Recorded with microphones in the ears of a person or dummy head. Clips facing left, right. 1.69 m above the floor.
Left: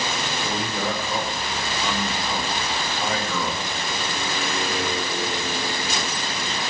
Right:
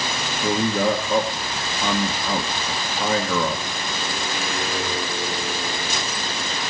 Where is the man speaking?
50° right (ahead or behind), 1.4 m.